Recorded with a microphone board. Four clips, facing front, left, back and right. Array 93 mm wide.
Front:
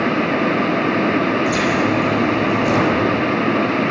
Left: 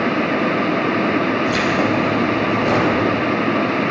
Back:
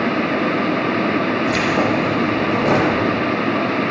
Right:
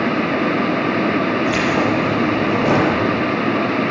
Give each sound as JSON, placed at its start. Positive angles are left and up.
{"t": 1.5, "sound": "keys jangling", "azimuth_deg": -125, "distance_m": 9.0}